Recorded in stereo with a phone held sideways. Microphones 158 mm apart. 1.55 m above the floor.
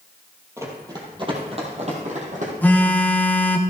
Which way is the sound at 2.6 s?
10° left (ahead or behind).